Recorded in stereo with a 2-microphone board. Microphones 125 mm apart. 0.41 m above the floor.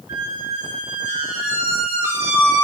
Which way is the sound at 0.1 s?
20° right (ahead or behind).